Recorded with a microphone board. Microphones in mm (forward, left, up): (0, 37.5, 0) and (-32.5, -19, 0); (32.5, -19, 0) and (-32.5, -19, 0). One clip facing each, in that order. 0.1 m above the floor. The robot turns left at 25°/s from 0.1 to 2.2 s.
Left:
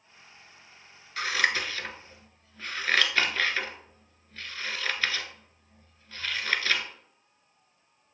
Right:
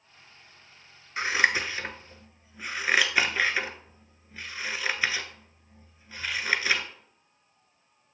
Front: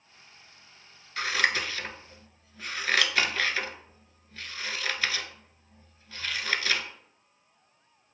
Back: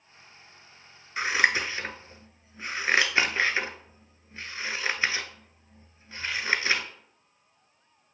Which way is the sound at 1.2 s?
145° right.